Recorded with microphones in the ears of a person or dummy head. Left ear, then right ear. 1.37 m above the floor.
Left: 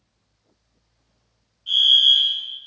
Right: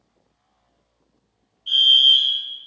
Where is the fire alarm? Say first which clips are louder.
Right 1 dB; 10° right (ahead or behind), 1.7 m.